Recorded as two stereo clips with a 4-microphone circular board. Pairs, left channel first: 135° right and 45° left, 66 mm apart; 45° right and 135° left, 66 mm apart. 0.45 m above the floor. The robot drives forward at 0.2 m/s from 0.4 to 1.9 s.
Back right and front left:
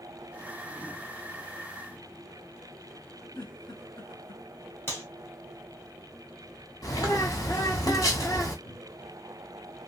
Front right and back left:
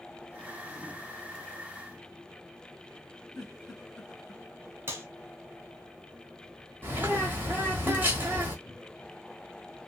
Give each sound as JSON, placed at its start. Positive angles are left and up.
{"t": 3.4, "sound": "a giggle", "azimuth_deg": -130, "distance_m": 2.0}
{"t": 4.9, "sound": "a clap", "azimuth_deg": 180, "distance_m": 1.2}
{"t": 6.8, "sound": "a bird", "azimuth_deg": -165, "distance_m": 1.0}
{"t": 8.7, "sound": "a cupboard door", "azimuth_deg": -130, "distance_m": 1.2}